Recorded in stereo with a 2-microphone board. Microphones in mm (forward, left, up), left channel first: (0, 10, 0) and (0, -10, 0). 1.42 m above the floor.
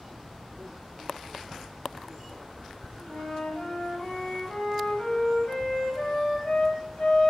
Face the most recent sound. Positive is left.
turn(degrees=60)  # may be behind; listen again after turning